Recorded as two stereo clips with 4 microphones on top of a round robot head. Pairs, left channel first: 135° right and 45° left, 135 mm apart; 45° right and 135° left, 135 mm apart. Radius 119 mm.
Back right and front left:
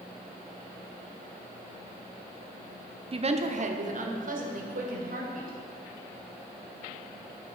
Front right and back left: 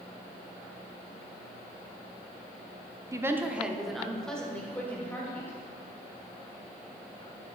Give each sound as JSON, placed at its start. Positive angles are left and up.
{"t": 3.1, "sound": "a woman speaking", "azimuth_deg": 75, "distance_m": 0.9}